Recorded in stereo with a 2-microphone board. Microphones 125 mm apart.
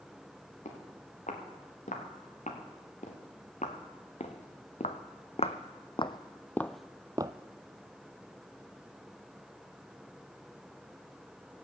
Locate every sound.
0.7 s footsteps: 80° left, 4 m; by 7.3 s 35° right (ahead or behind), 0.6 m